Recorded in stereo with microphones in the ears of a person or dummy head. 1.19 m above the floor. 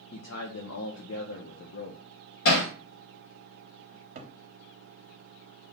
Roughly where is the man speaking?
Left.